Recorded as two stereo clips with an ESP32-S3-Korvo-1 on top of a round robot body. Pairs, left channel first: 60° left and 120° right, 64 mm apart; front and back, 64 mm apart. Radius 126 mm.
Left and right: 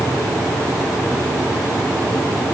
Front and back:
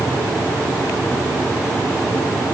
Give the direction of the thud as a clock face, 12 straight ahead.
No thud in this recording.